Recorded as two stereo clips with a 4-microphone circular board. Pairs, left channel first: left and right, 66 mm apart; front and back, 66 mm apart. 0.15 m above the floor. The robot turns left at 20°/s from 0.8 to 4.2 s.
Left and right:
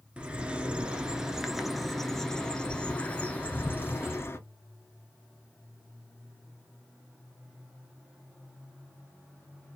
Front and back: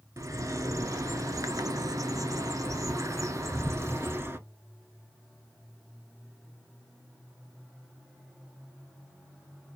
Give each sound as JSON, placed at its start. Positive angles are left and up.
{"t": 0.2, "sound": "a bird", "azimuth_deg": -160, "distance_m": 0.6}